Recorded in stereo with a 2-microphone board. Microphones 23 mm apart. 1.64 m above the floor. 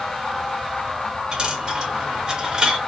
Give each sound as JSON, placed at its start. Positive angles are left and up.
{"t": 1.3, "sound": "a dropped coin", "side_deg": -35, "distance_m": 1.3}